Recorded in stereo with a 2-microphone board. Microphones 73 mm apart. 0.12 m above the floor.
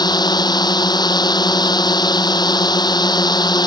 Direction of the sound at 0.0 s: 70° left (ahead or behind).